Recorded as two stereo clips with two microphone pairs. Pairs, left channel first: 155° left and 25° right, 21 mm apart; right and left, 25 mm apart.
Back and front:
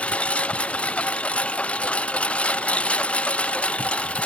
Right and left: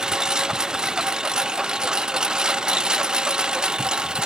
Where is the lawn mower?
150° left; by 4.3 s 145° left.